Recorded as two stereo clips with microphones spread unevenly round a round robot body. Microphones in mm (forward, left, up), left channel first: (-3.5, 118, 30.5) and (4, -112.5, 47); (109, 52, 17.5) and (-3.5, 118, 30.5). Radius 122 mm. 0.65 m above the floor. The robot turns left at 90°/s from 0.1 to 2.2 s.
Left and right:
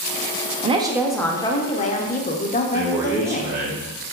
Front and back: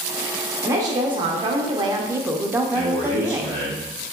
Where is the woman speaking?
140° right, 0.7 m; by 3.6 s 80° left, 0.7 m.